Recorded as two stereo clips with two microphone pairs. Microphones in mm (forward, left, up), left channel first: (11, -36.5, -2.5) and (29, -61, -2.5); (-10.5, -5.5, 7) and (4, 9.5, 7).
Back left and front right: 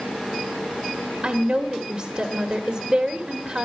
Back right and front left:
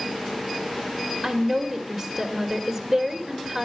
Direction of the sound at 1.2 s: 30° right.